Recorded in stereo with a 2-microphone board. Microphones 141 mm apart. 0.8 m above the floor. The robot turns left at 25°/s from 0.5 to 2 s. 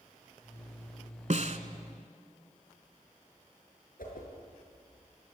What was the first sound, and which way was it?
A snare drum, 55° right (ahead or behind).